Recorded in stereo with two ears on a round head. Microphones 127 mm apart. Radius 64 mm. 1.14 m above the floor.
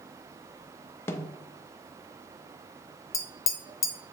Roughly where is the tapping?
Left.